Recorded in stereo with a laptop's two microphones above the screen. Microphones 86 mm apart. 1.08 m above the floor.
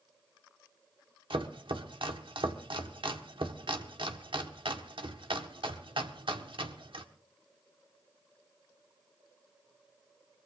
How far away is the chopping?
About 1.5 m.